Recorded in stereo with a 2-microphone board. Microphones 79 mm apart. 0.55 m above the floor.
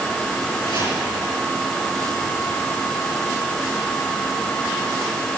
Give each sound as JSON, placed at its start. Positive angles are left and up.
{"t": 0.6, "sound": "chopping", "side_deg": -60, "distance_m": 6.5}